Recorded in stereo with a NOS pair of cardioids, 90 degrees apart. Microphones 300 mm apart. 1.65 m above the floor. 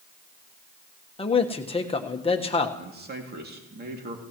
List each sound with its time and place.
1.2 s a man speaking: 20° left, 1.4 m
2.8 s a man speaking: 30° right, 2.5 m